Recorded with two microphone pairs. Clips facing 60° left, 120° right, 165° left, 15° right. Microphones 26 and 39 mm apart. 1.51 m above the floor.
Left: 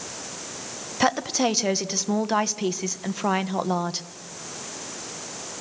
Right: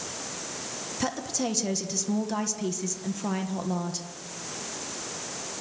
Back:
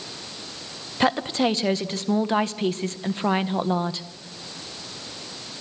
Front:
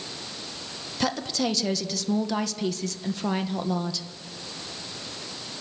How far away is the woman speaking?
About 1.5 m.